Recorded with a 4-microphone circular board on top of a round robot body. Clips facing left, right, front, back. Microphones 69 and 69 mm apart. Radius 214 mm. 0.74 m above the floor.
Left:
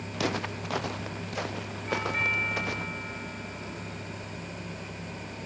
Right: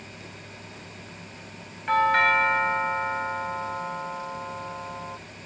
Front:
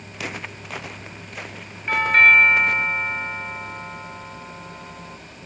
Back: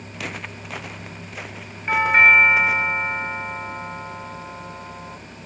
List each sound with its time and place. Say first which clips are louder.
0.1 s footsteps: left 12 dB, front 1 dB; 90° left; by 2.9 s 95° left
1.9 s a doorbell: right 10 dB, even; 105° right